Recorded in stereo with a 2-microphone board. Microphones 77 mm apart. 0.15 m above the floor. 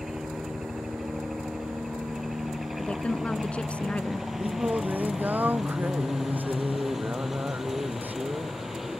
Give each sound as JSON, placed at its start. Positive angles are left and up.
{"t": 0.0, "sound": "a helicopter", "side_deg": -5}
{"t": 2.8, "sound": "a woman speaking", "side_deg": 15}
{"t": 4.4, "sound": "singing", "side_deg": -25}